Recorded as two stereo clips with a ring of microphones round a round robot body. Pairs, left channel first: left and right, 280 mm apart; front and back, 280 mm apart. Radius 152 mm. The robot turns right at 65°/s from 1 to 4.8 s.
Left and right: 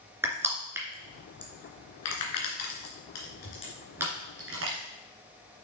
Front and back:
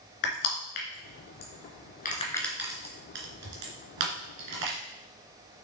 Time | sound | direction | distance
0.2 | crushing | 10° right | 2 m